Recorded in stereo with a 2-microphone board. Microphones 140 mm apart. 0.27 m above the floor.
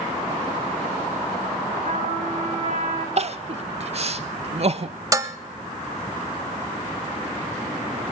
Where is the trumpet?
55° right (ahead or behind), 3.5 m.